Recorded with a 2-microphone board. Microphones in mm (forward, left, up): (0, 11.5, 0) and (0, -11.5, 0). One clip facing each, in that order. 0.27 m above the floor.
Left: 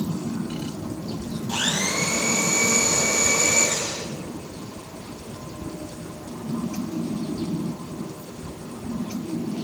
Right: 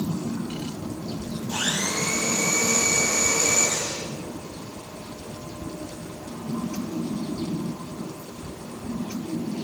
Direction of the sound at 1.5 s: 40° left (ahead or behind).